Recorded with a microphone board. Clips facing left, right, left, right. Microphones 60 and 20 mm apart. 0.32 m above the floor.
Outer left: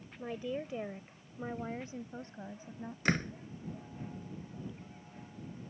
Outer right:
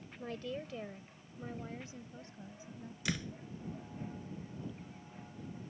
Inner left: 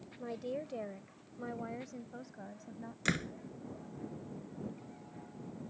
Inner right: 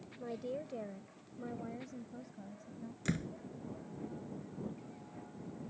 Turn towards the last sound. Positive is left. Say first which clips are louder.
# outer left 7 dB, inner left 4 dB
turn(degrees=45)  # may be behind; listen again after turning